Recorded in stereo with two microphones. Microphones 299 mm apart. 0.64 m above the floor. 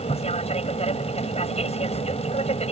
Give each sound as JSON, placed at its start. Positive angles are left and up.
{"t": 0.0, "sound": "an aircraft", "side_deg": 20}